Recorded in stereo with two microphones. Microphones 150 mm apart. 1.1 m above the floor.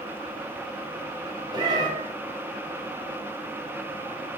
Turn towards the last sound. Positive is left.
turn(degrees=-25)  # may be behind; listen again after turning